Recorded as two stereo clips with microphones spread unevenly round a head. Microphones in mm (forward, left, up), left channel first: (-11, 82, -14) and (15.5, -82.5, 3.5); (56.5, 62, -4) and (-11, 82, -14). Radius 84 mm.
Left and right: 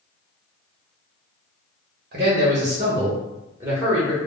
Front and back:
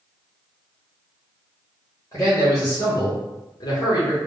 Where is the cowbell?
No cowbell in this recording.